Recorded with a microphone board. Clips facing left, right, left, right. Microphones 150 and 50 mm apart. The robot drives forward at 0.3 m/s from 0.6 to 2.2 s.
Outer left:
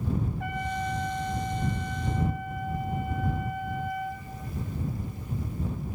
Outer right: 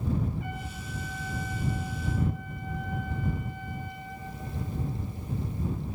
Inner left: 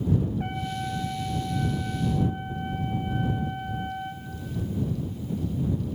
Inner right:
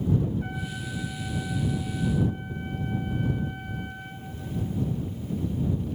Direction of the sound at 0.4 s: 85° left.